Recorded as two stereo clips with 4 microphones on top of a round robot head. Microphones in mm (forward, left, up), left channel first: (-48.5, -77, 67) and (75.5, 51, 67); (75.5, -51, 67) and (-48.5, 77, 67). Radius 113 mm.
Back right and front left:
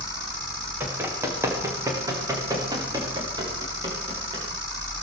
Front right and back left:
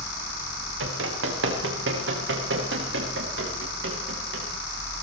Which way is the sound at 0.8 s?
125° left.